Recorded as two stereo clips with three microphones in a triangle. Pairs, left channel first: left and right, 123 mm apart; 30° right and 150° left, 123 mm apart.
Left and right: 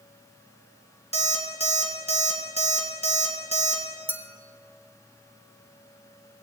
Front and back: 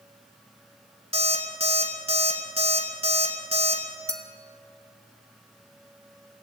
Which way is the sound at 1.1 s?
115° left.